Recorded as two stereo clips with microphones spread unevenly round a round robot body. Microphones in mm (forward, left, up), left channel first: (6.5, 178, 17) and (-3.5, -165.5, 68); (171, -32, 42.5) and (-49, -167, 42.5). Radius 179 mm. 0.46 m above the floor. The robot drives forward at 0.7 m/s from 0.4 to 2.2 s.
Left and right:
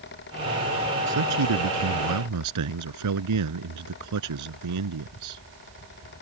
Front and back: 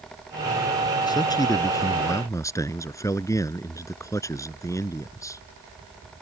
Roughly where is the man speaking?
Ahead right.